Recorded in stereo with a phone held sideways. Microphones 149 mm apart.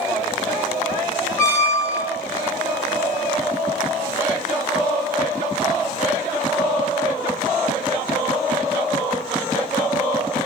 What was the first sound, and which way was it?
A squeak, 15° left (ahead or behind).